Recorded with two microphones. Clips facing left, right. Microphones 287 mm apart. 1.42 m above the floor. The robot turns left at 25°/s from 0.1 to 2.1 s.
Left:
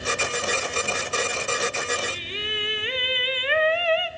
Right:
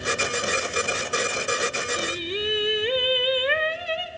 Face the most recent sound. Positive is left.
turn(degrees=-50)  # may be behind; listen again after turning